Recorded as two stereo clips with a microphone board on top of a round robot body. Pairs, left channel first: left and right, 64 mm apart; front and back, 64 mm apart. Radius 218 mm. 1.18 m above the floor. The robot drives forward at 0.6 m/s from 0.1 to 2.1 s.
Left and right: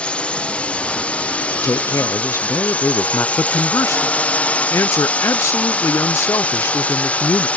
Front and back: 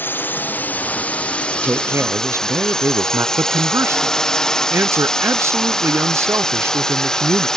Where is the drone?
30° left; by 7.6 s 65° left.